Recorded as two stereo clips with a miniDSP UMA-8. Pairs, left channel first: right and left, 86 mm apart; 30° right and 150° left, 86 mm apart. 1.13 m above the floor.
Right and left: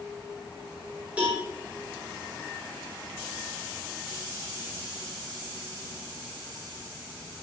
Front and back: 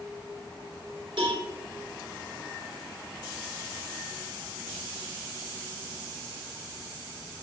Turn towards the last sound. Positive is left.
turn(degrees=165)